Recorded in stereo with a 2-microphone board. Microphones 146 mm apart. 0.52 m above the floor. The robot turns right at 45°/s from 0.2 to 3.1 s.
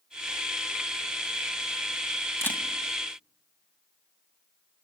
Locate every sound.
2.4 s a camera shutter: 15° left (ahead or behind), 2.5 m; by 2.6 s 5° left (ahead or behind), 2.5 m